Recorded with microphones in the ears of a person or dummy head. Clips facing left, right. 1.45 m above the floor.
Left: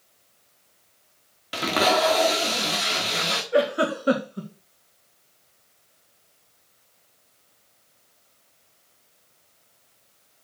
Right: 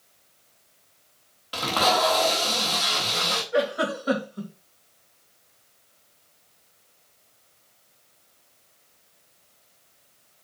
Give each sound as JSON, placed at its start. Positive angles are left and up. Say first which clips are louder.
{"t": 1.5, "sound": "tape being pulled", "louder": "left 2 dB", "side_deg": 20, "distance_m": 1.4}
{"t": 3.5, "sound": "a giggle", "louder": "left 3 dB", "side_deg": 40, "distance_m": 1.9}